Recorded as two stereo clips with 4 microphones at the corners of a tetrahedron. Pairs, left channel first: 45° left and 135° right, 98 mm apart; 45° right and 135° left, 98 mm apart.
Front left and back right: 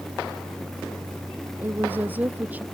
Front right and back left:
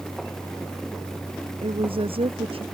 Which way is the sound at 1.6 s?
155° left.